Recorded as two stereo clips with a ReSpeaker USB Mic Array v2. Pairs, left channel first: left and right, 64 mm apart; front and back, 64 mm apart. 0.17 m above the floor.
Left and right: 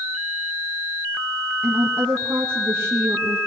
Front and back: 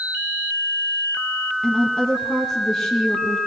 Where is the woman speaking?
75° right, 1.4 m.